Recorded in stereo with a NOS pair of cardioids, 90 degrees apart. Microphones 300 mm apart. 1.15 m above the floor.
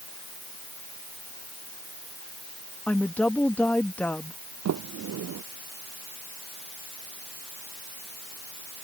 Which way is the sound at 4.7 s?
60° right.